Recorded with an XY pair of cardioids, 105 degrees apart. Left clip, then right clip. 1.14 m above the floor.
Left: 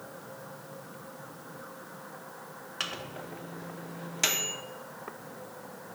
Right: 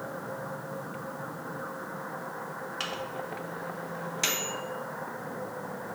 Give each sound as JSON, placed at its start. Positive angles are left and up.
{"t": 2.8, "sound": "a microwave", "azimuth_deg": 15, "distance_m": 0.7}